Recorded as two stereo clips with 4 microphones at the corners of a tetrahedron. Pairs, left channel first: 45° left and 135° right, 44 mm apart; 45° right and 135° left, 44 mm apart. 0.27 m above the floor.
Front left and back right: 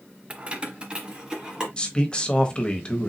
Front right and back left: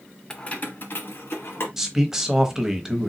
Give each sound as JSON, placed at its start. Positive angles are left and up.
{"t": 0.3, "sound": "keys jangling", "azimuth_deg": -100, "distance_m": 0.6}
{"t": 1.8, "sound": "a man speaking", "azimuth_deg": 70, "distance_m": 1.0}